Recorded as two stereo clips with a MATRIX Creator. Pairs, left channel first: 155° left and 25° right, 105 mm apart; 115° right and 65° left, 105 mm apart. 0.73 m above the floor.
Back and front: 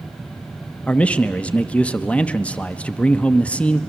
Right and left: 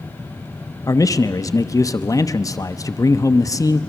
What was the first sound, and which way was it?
A man speaking, 135° right.